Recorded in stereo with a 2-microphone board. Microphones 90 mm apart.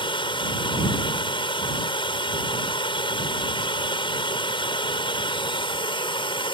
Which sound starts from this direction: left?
Running water, at 0.0 s.